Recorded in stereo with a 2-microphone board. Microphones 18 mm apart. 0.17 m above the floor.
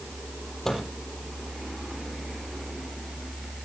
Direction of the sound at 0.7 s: 20° left (ahead or behind).